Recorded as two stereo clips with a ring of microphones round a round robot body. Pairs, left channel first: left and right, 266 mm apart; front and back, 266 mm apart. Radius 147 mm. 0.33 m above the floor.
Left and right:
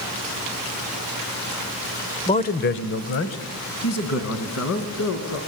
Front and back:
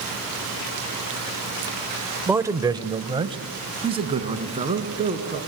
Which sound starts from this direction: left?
A man speaking, at 2.3 s.